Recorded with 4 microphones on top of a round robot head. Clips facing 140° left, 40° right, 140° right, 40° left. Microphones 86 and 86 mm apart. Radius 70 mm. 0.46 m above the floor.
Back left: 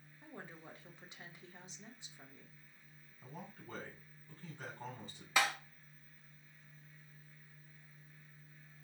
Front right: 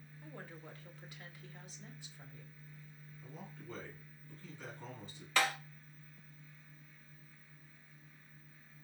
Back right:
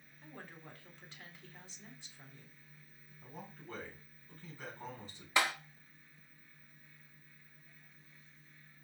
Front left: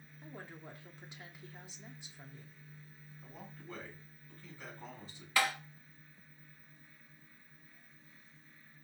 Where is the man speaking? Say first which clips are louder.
Even, back right 1 dB; 170° left, 3 m.